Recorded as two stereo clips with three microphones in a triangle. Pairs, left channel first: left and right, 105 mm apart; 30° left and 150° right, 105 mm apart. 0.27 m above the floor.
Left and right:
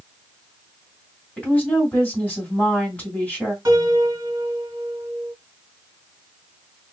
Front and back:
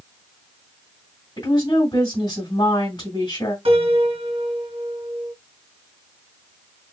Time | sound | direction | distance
1.4 | a woman speaking | 15° left | 1.9 m
3.6 | a piano | 145° right | 1.8 m